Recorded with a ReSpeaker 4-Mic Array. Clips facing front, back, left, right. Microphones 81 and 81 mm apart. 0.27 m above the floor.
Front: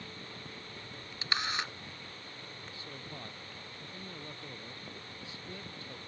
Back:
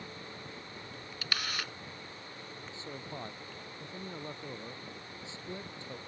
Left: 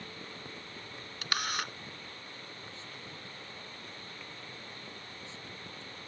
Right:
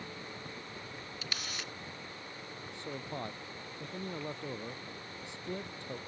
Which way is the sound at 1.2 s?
65° left.